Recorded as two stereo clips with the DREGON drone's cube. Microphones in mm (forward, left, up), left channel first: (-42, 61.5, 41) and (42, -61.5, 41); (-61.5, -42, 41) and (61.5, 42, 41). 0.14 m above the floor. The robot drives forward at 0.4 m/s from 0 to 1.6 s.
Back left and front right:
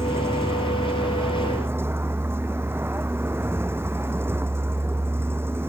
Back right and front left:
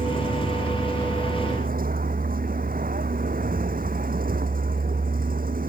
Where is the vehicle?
15° left; by 5.7 s 20° left.